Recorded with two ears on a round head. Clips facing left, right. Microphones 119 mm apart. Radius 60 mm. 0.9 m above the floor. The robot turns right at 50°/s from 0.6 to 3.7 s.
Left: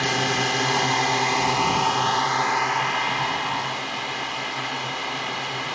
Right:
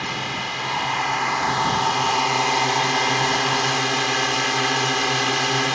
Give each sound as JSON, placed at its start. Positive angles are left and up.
{"t": 0.0, "sound": "a drone", "azimuth_deg": 115}